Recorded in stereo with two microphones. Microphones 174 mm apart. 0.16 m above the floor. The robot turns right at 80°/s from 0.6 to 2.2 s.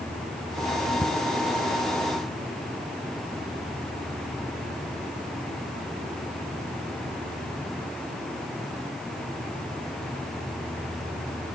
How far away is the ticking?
About 1.3 m.